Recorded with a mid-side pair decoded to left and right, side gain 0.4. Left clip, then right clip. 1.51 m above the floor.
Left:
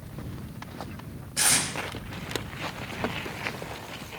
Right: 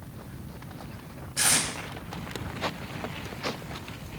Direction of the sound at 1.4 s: 15° left.